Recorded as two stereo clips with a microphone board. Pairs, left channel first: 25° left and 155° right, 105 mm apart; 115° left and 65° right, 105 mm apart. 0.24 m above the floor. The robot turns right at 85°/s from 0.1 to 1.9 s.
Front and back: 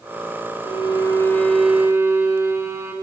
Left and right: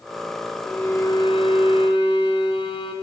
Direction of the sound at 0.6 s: 30° left.